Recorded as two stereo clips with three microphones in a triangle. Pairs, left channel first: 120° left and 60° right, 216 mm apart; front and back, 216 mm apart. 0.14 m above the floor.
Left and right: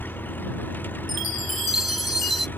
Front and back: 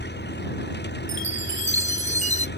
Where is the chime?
50° right.